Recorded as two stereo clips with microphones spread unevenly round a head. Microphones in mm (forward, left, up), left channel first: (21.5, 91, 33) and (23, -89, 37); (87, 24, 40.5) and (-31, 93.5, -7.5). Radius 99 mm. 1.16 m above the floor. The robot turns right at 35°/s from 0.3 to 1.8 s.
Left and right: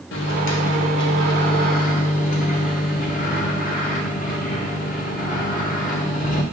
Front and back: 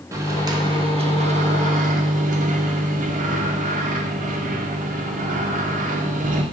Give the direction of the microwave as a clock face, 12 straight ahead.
9 o'clock.